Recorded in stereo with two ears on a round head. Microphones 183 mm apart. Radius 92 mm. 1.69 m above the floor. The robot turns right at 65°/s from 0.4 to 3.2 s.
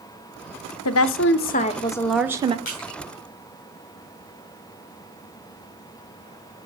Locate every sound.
0.8 s a woman speaking: 95° left, 0.6 m; by 2.5 s 155° right, 0.6 m
2.6 s crushing: 40° left (ahead or behind), 4 m; by 3.0 s 60° left (ahead or behind), 4 m